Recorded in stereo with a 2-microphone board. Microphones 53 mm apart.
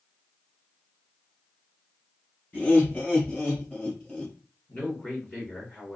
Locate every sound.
2.5 s laughter: 30° left (ahead or behind), 1.2 m; by 4.3 s 15° left (ahead or behind), 1.5 m
4.7 s a man speaking: 30° left (ahead or behind), 1.7 m